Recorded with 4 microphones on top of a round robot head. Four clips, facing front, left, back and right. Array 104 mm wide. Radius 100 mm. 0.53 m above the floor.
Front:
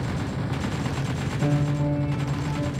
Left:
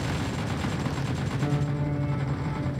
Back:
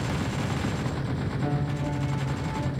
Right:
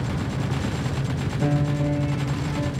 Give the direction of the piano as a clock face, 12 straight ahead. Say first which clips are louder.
Right 7 dB, front 7 dB; 2 o'clock.